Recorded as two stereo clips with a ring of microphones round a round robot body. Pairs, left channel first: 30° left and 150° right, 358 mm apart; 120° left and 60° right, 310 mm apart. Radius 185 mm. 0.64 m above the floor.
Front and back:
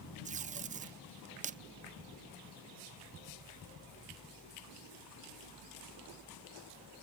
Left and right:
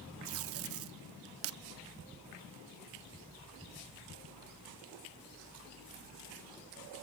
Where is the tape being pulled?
85° right, 0.7 m.